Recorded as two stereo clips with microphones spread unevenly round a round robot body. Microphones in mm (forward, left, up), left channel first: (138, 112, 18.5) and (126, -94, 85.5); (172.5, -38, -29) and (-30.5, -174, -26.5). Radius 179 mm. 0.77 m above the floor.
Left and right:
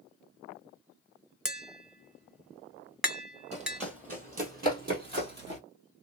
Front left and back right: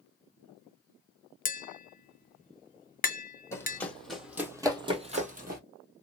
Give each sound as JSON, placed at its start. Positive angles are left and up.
{"t": 1.4, "sound": "tapping", "azimuth_deg": -20, "distance_m": 0.8}
{"t": 3.5, "sound": "running footsteps", "azimuth_deg": -45, "distance_m": 2.0}